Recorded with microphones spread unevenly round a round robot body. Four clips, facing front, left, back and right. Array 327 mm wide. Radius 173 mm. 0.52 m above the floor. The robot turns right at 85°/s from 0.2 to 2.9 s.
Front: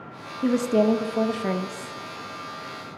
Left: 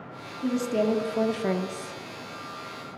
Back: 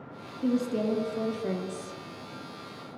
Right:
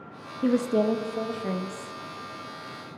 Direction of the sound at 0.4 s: 30° right.